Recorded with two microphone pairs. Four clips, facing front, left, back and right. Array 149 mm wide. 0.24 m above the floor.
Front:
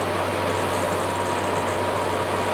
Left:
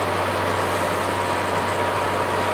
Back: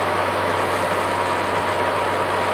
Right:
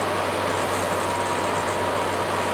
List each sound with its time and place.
Only background noise.